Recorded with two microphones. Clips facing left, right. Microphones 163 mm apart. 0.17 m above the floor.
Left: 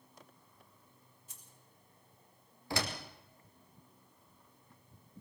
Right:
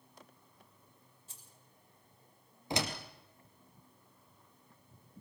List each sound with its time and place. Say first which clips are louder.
1.3 s keys jangling: right 1 dB; 30° right (ahead or behind), 4 m
2.7 s a door slam: right 2 dB; 20° right (ahead or behind), 3 m